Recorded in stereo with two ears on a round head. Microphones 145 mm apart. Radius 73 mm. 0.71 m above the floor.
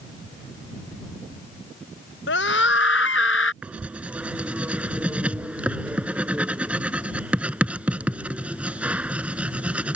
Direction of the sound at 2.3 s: 75° left (ahead or behind).